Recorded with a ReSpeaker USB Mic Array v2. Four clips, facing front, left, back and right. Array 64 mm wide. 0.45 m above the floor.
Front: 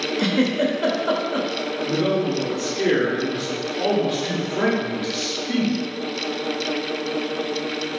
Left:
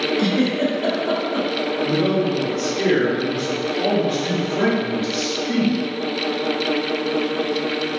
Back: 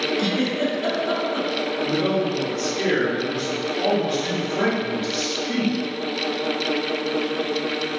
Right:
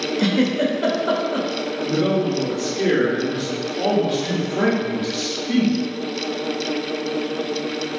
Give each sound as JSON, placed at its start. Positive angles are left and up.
{"t": 0.2, "sound": "a giggle", "azimuth_deg": -35, "distance_m": 0.6}
{"t": 1.8, "sound": "a man speaking", "azimuth_deg": -35, "distance_m": 1.0}